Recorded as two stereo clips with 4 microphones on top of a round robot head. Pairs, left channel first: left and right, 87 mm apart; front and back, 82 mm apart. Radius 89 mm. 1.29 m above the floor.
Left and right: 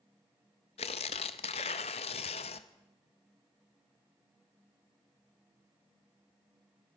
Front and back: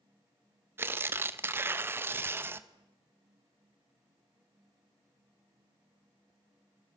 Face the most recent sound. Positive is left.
turn(degrees=120)